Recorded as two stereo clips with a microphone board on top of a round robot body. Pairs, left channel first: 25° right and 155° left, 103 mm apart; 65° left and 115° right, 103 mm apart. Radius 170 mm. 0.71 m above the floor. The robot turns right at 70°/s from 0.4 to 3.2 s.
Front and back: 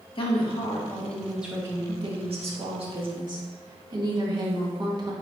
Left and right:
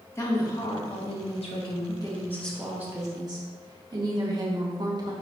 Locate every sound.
0.1 s a woman speaking: 5° left, 2 m; by 5.1 s 160° right, 2 m